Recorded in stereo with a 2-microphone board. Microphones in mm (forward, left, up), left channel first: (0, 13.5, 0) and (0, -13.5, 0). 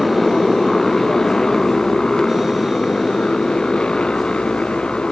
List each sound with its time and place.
0.0 s a motorcycle: 10° left (ahead or behind); by 5.1 s 40° left (ahead or behind)